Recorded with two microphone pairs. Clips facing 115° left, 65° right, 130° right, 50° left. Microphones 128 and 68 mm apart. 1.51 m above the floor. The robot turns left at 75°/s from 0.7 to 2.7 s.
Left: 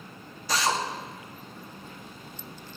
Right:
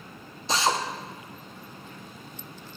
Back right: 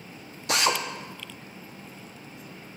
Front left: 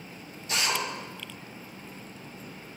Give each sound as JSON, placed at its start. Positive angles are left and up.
{"t": 0.5, "sound": "a drill", "azimuth_deg": -130, "distance_m": 0.8}